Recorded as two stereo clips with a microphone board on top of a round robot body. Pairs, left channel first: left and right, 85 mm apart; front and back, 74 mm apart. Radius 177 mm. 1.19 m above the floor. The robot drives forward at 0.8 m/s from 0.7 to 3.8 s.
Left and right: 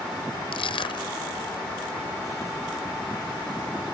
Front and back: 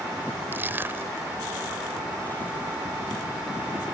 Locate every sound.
0.5 s crushing: 115° left; by 1.3 s 120° left